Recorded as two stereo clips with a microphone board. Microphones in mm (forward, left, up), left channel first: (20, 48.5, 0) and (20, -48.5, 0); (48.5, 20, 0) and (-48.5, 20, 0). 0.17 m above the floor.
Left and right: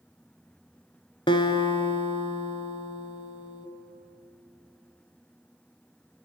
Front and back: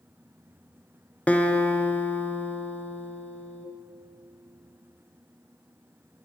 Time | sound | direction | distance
1.3 | a guitar | 75° left | 0.9 m